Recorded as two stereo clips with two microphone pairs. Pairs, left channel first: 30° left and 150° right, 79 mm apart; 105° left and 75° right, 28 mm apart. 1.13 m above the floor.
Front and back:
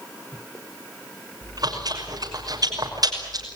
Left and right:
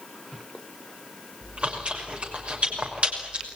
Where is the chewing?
120° right, 6 m.